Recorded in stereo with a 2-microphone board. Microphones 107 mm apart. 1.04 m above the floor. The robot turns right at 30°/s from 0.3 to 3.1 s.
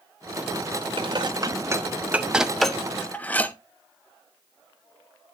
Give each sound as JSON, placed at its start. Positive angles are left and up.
{"t": 1.0, "sound": "dishes clattering", "side_deg": -50, "distance_m": 1.0}